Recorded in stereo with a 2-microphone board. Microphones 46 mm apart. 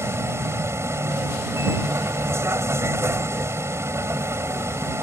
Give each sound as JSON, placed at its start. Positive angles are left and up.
{"t": 0.0, "sound": "a vehicle", "side_deg": -80}